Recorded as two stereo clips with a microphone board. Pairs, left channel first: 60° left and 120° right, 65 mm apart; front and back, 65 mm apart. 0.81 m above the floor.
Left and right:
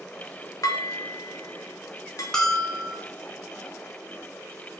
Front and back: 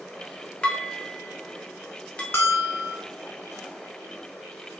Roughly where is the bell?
Ahead.